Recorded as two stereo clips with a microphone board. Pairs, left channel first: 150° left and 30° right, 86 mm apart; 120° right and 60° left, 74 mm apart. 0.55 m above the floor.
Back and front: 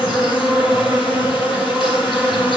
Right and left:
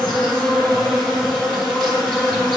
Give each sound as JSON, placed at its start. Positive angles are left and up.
{"t": 0.0, "sound": "an insect", "azimuth_deg": 165, "distance_m": 6.0}